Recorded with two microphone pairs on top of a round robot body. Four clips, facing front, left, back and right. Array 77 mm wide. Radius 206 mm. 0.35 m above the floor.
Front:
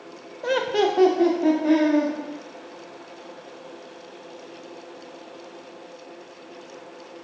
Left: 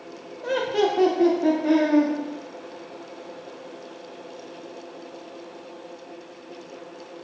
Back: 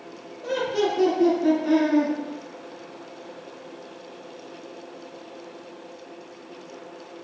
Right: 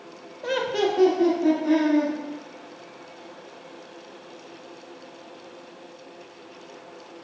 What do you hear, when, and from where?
0.4 s laughter: 10° right, 1.0 m; by 2.1 s 35° left, 2 m